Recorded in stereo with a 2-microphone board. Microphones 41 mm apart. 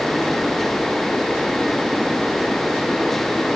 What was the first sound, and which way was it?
Only background noise.